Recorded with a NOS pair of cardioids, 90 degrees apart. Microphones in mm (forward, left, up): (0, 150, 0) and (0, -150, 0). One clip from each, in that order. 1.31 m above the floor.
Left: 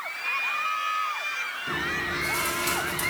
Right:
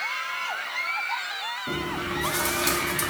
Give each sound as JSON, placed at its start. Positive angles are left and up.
{"t": 1.7, "sound": "chewing", "azimuth_deg": -40, "distance_m": 2.5}